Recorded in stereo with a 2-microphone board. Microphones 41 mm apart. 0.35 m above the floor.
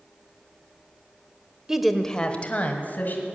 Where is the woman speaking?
15° right (ahead or behind), 0.9 m; by 3.3 s 50° left (ahead or behind), 2.5 m.